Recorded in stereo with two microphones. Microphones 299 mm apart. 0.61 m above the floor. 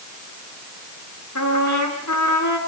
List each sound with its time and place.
1.4 s a trumpet: 65° left (ahead or behind), 6 m